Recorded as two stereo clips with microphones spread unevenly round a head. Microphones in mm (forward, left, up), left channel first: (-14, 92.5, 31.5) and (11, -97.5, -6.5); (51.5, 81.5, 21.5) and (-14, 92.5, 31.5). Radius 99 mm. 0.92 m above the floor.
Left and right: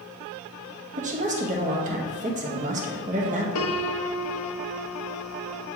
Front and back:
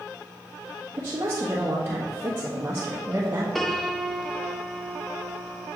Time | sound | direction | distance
1.0 | a woman speaking | 120° right | 1.2 m
3.5 | a piano | 75° left | 0.6 m